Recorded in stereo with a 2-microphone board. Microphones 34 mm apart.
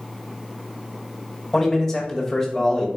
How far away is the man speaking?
About 1.3 m.